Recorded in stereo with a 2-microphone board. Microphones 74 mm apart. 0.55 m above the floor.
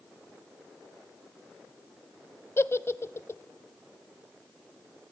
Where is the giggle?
35° left (ahead or behind), 0.7 m.